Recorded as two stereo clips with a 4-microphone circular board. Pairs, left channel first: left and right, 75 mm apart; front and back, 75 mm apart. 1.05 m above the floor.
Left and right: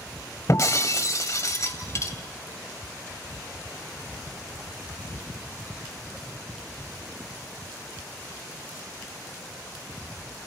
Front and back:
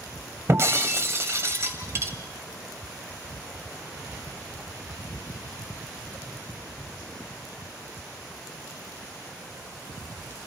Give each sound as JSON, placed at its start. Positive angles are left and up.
{"t": 0.5, "sound": "breaking glass", "azimuth_deg": 130, "distance_m": 1.9}